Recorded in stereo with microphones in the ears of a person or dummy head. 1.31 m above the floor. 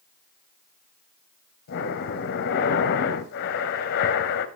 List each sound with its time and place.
1.7 s breathing: 60° left (ahead or behind), 2.0 m